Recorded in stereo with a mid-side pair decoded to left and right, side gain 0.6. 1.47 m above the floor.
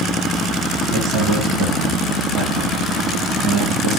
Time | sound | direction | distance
0.9 | a man speaking | 60° right | 1.8 m